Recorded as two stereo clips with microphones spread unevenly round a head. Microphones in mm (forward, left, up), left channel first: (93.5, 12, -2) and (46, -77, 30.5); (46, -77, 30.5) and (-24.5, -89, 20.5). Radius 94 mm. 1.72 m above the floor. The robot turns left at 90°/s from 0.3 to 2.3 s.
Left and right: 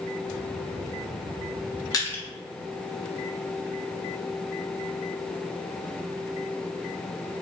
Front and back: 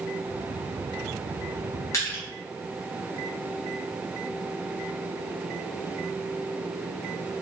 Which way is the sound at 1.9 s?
Straight ahead.